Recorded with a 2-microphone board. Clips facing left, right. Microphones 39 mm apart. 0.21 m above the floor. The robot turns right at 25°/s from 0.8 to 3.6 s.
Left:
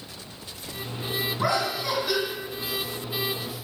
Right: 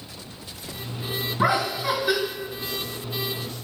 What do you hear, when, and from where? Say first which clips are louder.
1.4 s laughter: right 5 dB; 25° right (ahead or behind), 1.9 m; by 2.2 s 10° right (ahead or behind), 1.9 m